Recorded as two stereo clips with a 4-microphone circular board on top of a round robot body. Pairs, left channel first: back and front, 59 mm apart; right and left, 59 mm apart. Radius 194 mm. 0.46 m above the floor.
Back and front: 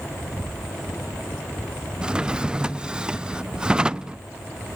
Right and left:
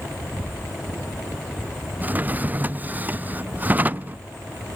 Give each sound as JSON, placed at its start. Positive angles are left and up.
{"t": 2.0, "sound": "a drawer", "azimuth_deg": 60, "distance_m": 0.6}